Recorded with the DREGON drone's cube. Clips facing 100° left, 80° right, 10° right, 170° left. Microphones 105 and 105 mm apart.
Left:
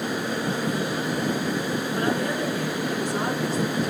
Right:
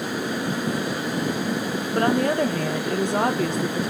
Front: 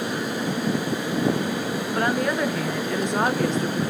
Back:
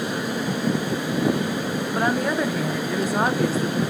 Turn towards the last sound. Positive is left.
turn(degrees=-105)